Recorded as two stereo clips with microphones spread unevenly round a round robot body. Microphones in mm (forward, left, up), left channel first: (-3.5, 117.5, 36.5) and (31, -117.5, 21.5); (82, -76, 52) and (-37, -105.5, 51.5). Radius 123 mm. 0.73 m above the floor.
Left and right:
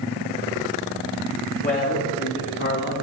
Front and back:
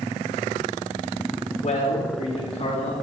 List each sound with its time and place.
1.6 s a man speaking: 45° left, 2.5 m; by 2.9 s 60° left, 1.9 m